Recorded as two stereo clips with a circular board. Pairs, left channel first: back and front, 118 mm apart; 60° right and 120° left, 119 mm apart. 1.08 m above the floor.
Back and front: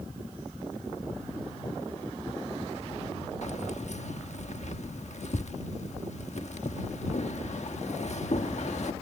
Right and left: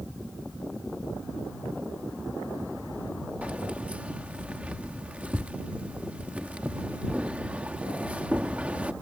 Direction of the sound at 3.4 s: 160° right.